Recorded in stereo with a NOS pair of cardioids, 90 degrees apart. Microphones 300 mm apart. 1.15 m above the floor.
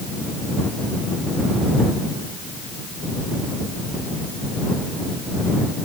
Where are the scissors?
No scissors in this recording.